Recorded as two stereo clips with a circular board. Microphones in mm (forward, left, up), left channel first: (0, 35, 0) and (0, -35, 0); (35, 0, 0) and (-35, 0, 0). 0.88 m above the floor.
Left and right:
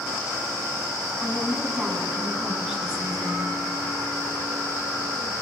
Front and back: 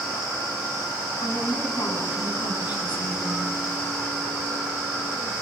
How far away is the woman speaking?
About 8 m.